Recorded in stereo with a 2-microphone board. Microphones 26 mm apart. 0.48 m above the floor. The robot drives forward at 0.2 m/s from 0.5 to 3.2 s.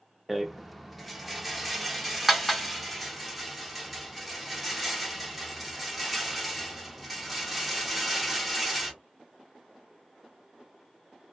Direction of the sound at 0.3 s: 5° right (ahead or behind).